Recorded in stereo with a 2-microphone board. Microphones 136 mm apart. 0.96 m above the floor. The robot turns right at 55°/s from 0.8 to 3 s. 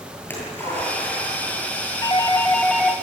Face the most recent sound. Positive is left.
turn(degrees=-165)